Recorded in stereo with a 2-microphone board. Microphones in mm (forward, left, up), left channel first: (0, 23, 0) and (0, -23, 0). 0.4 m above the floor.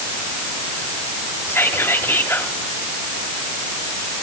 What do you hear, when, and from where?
1.5 s whispering: 55° left (ahead or behind), 2 m